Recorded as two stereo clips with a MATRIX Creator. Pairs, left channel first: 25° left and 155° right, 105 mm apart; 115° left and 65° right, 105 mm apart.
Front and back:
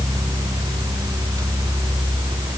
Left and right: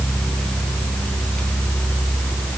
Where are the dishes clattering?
I don't hear dishes clattering.